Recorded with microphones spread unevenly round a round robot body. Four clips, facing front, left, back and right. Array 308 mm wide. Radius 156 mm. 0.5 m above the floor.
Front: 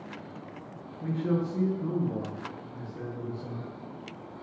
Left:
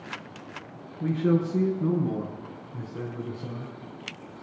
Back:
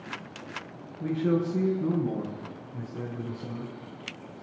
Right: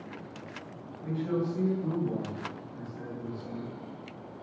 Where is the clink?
No clink in this recording.